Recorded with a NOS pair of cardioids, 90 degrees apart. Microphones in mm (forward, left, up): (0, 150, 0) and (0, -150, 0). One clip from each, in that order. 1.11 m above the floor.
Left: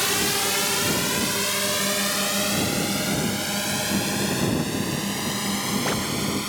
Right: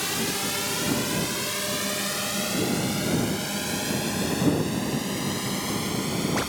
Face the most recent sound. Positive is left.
turn(degrees=30)